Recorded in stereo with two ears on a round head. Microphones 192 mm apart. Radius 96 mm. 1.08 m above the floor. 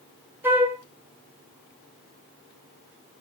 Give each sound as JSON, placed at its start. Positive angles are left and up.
{"t": 0.4, "sound": "a flute", "side_deg": -10, "distance_m": 1.6}